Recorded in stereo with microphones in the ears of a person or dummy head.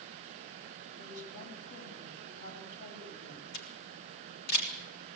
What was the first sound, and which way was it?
A woman speaking, 50° left (ahead or behind).